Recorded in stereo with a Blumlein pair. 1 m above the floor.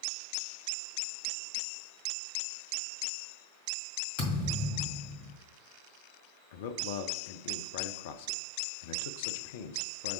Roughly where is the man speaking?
Ahead left.